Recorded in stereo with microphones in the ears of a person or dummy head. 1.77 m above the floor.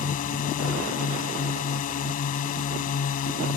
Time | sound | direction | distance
0.0 | a drone | 45° left (ahead or behind) | ?